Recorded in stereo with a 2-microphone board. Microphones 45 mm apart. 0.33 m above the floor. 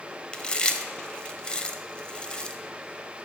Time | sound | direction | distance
0.3 | chewing | 20° left (ahead or behind) | 0.7 m